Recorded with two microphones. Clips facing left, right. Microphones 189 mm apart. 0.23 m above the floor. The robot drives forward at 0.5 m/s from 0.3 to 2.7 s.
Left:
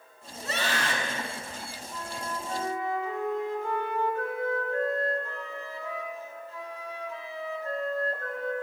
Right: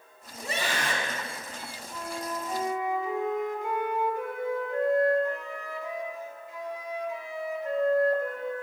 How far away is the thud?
No thud in this recording.